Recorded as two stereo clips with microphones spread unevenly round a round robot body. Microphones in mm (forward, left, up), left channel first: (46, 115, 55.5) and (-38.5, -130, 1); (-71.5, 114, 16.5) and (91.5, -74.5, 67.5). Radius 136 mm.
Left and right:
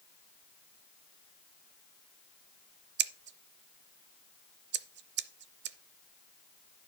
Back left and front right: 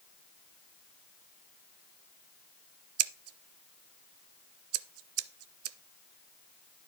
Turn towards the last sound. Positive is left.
turn(degrees=-80)